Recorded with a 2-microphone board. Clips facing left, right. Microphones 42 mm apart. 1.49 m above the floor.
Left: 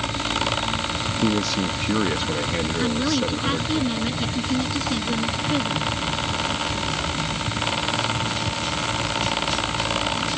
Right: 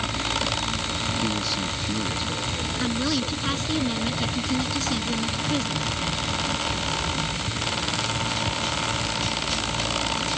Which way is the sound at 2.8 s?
10° left (ahead or behind).